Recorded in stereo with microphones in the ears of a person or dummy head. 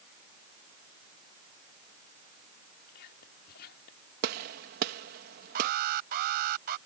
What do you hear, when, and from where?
2.9 s whispering: 55° left (ahead or behind)
4.2 s a gunshot: 55° right (ahead or behind)
5.5 s an alarm: 55° right (ahead or behind)